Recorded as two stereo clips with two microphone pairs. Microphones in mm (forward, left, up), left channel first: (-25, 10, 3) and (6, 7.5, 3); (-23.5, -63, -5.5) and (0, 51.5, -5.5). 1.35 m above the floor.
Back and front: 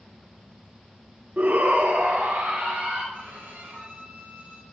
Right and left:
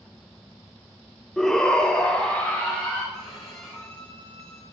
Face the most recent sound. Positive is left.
turn(degrees=-15)